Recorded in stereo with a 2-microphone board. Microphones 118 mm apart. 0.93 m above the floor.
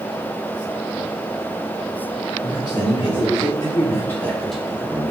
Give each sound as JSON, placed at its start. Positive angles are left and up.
{"t": 2.4, "sound": "a man speaking", "side_deg": 40, "distance_m": 1.5}